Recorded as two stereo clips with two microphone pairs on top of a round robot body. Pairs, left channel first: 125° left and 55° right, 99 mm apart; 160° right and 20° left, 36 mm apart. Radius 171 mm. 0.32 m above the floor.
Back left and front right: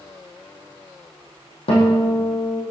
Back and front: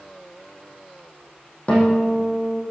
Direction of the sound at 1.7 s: 150° left.